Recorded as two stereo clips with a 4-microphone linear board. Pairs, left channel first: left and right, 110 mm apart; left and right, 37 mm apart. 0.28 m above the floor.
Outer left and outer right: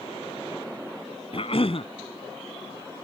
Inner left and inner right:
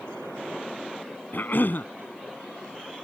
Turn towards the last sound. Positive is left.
turn(degrees=60)  # may be behind; listen again after turning